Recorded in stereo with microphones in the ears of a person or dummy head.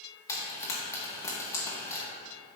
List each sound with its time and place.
0.3 s frying: 15° left (ahead or behind), 1.6 m